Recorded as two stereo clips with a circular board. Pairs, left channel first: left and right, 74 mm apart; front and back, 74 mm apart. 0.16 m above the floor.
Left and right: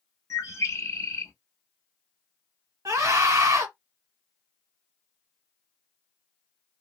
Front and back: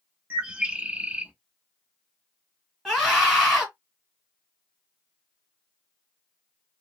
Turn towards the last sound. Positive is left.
turn(degrees=-95)